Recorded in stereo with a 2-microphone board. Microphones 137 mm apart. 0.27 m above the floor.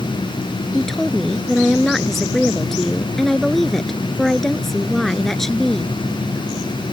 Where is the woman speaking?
Centre (ahead or behind).